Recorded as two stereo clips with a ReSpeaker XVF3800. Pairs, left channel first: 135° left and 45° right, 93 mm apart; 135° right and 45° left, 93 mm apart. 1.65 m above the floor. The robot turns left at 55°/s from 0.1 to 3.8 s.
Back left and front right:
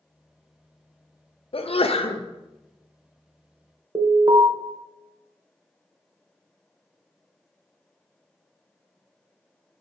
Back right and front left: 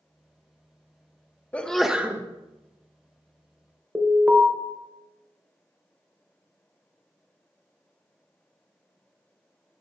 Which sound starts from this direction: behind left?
A sneeze, at 1.5 s.